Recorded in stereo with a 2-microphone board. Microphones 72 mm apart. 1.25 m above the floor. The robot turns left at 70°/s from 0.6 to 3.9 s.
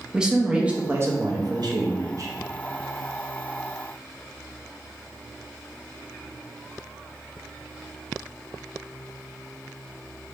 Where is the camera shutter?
I don't hear a camera shutter.